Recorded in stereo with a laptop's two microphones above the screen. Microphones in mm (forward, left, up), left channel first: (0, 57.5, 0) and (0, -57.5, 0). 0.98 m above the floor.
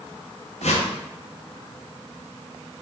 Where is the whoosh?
75° left (ahead or behind), 0.6 m.